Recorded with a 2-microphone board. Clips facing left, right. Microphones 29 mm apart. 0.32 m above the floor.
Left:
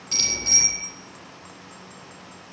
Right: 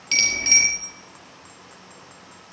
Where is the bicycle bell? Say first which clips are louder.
Right 4 dB; 55° right (ahead or behind), 5 m.